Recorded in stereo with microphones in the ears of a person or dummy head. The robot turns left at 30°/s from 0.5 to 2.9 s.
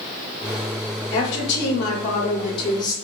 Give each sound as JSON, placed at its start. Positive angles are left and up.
{"t": 1.1, "sound": "a woman speaking", "azimuth_deg": 75, "distance_m": 0.9}